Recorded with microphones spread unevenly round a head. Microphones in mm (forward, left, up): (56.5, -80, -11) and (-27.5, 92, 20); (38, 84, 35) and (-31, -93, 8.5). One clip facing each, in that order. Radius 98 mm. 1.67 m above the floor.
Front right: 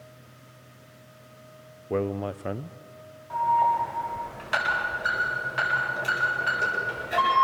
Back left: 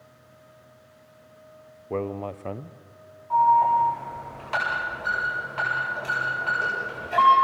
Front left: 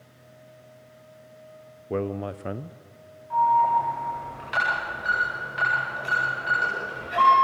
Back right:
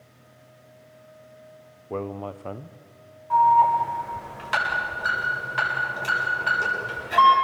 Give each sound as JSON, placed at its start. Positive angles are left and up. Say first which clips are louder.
{"t": 1.9, "sound": "a man speaking", "louder": "front right 2 dB, front left 3 dB", "azimuth_deg": 20, "distance_m": 0.6}
{"t": 3.3, "sound": "an alarm", "louder": "back left 4 dB, back right 3 dB", "azimuth_deg": -135, "distance_m": 9.5}